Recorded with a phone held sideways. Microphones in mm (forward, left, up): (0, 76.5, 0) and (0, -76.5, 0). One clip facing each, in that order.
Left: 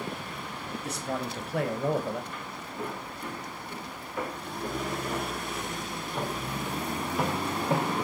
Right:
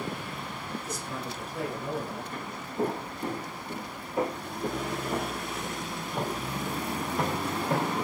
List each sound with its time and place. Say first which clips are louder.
0.8 s a man speaking: left 3 dB; 65° left (ahead or behind), 5 m
2.3 s footsteps: right 5 dB; 40° right (ahead or behind), 4 m; by 7.9 s 10° left (ahead or behind), 3 m